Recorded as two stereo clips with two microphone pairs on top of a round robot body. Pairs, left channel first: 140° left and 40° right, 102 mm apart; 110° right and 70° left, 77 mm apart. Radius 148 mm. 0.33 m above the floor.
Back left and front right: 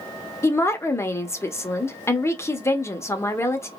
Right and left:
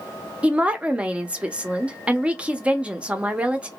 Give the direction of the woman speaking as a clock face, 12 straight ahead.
8 o'clock.